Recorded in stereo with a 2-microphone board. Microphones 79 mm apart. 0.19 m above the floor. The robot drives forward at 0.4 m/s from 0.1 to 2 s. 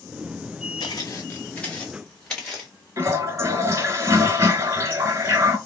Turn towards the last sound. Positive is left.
turn(degrees=-35)  # may be behind; listen again after turning